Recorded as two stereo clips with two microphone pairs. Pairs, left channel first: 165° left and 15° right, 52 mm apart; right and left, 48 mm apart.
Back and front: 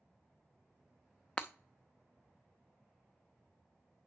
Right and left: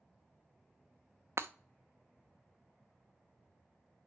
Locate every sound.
1.4 s breaking glass: 95° left, 0.7 m